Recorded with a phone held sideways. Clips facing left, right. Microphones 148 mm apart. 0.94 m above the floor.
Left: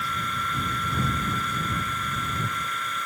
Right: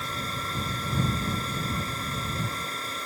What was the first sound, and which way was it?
A fan, 35° right (ahead or behind).